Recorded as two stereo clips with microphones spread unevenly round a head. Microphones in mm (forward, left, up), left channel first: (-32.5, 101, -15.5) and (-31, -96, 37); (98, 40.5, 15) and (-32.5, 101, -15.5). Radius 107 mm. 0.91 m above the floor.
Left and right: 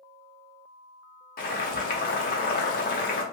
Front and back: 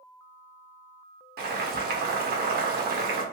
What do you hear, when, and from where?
1.4 s boiling: 140° left, 0.9 m